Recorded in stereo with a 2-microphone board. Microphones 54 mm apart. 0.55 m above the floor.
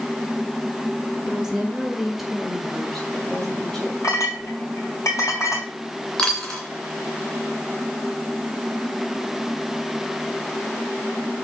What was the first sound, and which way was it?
A woman speaking, 15° right (ahead or behind).